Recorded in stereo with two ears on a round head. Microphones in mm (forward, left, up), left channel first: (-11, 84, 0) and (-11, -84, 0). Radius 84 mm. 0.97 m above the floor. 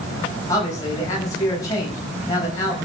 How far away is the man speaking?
About 6 m.